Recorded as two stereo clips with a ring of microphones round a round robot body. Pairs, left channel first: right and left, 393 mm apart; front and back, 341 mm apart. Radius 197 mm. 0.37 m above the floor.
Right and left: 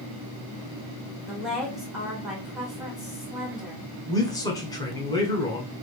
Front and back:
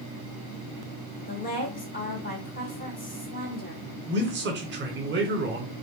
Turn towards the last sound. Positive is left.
turn(degrees=-165)